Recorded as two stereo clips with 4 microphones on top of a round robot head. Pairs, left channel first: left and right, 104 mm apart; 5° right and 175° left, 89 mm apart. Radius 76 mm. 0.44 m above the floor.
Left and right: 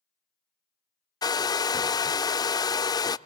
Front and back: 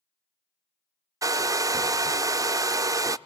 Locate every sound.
1.2 s a hair dryer: 135° left, 0.6 m